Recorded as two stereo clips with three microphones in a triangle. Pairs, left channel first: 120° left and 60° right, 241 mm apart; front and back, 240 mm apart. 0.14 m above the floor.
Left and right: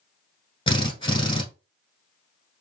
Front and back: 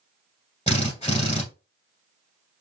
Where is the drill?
55° left, 1.3 m.